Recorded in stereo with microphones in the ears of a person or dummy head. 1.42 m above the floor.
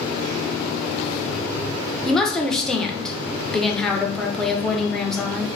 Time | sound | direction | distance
2.0 | a woman speaking | 5° left (ahead or behind) | 0.7 m